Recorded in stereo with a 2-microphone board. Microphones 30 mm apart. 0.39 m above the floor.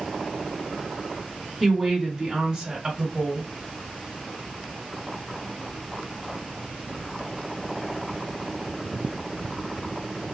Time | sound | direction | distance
1.6 | a woman speaking | centre (ahead or behind) | 1.7 m